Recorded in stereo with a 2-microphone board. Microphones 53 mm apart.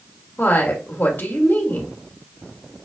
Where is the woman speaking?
45° left (ahead or behind), 1.5 m.